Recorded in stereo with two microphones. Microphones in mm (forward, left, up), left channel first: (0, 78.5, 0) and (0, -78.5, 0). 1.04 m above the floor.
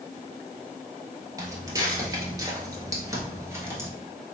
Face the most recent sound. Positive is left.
turn(degrees=-15)  # may be behind; listen again after turning